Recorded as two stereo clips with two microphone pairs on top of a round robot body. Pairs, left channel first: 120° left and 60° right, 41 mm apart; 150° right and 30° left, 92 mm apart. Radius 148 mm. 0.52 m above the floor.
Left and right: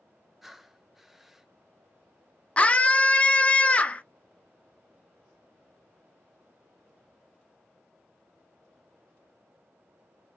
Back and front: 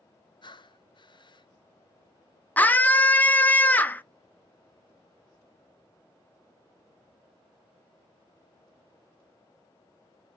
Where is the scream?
165° left, 0.6 m.